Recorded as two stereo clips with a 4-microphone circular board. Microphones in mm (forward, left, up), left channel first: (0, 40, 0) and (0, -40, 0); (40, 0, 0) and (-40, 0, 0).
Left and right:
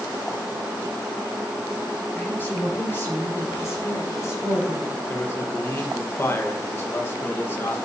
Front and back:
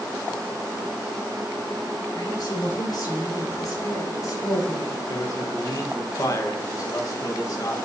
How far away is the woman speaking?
About 5 m.